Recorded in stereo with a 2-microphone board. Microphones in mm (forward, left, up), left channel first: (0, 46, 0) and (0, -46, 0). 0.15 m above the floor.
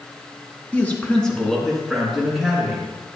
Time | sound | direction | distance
0.7 | a man speaking | 20° left (ahead or behind) | 1.4 m